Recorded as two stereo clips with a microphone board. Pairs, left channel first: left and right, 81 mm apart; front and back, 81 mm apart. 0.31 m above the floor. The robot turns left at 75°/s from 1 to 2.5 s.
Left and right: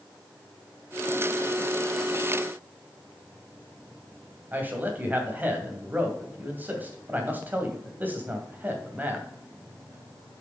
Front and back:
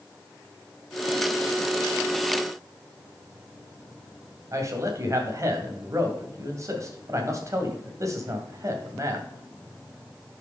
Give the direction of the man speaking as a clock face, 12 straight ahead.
5 o'clock.